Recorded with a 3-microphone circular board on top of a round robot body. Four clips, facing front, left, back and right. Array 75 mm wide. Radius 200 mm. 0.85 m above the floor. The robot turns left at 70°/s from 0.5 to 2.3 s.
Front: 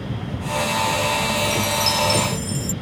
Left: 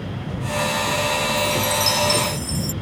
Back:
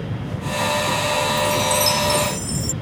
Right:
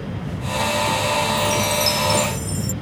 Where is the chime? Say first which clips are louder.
Right 1 dB, back 3 dB; 150° right; by 2.7 s 145° left.